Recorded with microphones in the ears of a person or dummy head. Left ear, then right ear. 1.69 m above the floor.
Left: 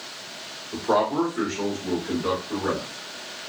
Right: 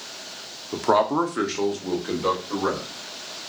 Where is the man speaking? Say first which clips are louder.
Right 2 dB; 45° right (ahead or behind), 0.5 m.